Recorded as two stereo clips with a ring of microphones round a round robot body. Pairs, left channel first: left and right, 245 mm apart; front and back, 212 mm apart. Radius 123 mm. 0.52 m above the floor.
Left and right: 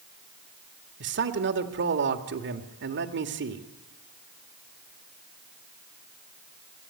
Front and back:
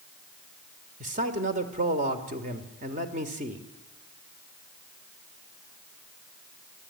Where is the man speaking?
125° right, 1.7 m.